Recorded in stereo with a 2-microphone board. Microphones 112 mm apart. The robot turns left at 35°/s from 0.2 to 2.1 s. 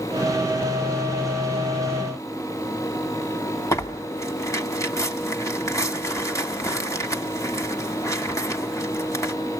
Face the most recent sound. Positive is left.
turn(degrees=25)  # may be behind; listen again after turning